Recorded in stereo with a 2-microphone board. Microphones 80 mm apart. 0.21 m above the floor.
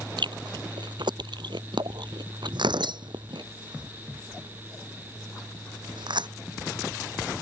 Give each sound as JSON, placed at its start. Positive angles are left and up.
{"t": 0.2, "sound": "chewing", "side_deg": -75}
{"t": 2.5, "sound": "tearing paper", "side_deg": -85}